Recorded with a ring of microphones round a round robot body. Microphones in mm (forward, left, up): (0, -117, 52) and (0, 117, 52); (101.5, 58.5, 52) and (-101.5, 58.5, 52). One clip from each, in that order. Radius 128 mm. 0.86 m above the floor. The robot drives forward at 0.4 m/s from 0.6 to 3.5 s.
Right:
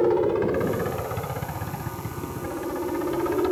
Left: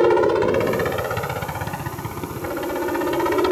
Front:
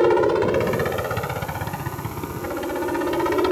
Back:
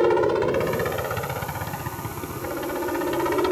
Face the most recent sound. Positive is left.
turn(degrees=105)